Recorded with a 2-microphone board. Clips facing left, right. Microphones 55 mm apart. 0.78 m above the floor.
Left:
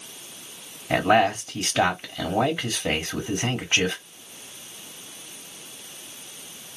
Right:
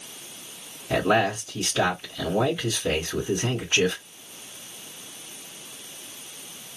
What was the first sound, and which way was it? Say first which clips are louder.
A man speaking: left 2 dB; 45° left (ahead or behind).